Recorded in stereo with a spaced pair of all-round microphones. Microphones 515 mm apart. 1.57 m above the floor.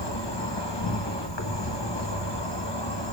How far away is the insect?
About 1.3 m.